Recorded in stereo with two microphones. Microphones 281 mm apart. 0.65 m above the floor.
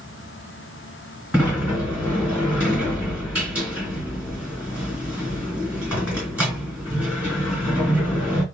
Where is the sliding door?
5° right (ahead or behind), 3 m.